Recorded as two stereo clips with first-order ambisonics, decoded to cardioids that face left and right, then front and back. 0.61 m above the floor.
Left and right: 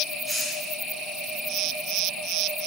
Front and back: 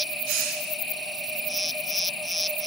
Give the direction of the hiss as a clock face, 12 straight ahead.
6 o'clock.